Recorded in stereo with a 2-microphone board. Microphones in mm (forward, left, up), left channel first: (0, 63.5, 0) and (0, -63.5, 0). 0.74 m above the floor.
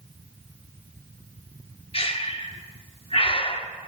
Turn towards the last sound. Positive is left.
turn(degrees=50)  # may be behind; listen again after turning